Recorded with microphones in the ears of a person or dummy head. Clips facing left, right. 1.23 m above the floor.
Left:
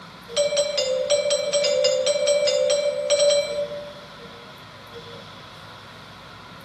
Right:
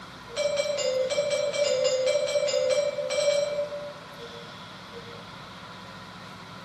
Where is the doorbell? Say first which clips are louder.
Left 5 dB; 60° left (ahead or behind), 1.3 m.